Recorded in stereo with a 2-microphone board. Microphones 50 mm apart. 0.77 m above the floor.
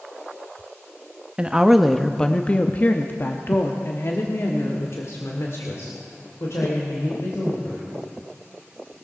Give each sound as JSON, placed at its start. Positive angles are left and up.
{"t": 1.4, "sound": "a woman speaking", "side_deg": -20, "distance_m": 0.8}